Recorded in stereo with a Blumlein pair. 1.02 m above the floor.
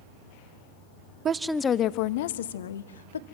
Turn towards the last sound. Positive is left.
turn(degrees=70)